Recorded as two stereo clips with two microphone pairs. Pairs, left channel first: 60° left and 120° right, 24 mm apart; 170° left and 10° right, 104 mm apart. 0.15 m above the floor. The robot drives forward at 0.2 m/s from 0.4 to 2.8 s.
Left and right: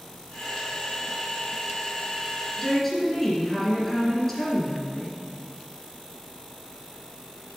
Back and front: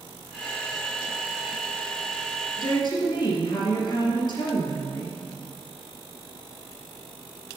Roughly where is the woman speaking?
Behind left.